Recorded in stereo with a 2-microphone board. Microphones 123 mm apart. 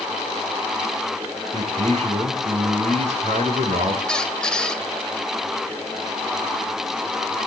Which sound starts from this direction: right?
A man speaking, at 1.5 s.